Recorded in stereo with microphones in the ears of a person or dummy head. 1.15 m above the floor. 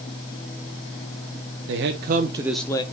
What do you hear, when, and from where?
1.7 s a man speaking: 65° right (ahead or behind), 1.0 m; by 2.8 s 20° left (ahead or behind), 0.7 m